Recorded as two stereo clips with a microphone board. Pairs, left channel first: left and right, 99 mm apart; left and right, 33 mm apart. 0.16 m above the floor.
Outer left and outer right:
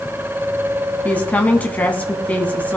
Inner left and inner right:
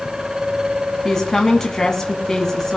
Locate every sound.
1.1 s a woman speaking: 15° left (ahead or behind), 1.1 m